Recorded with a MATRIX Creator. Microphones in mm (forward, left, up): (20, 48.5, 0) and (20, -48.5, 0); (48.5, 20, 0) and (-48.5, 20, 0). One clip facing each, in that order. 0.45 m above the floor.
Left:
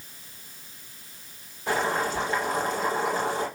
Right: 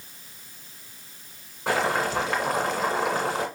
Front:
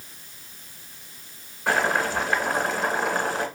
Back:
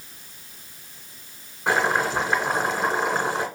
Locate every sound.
1.7 s boiling: 110° right, 1.8 m